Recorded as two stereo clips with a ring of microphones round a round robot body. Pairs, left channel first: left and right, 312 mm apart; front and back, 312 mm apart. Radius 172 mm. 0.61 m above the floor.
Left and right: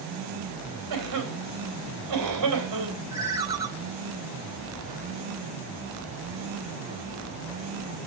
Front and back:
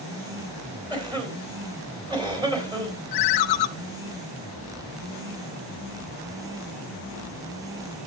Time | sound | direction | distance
0.9 | a cough | 105° right | 3.5 m
3.1 | a ringtone | 10° right | 0.6 m